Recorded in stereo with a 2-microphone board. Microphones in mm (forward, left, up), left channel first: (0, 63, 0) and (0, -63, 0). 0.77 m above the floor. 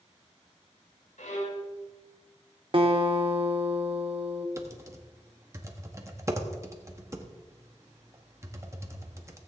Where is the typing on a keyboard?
20° right (ahead or behind), 1.3 m.